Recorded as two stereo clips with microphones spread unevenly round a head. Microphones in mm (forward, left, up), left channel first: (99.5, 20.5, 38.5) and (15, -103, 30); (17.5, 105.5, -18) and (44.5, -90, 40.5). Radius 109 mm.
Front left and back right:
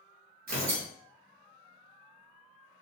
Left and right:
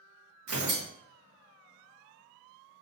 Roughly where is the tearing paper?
Right.